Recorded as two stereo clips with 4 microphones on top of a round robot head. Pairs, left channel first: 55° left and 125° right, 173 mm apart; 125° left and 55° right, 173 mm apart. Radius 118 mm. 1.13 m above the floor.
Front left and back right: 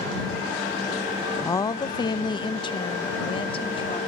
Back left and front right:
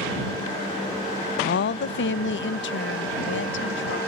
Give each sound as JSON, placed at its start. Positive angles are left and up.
{"t": 1.4, "sound": "a woman speaking", "azimuth_deg": 125}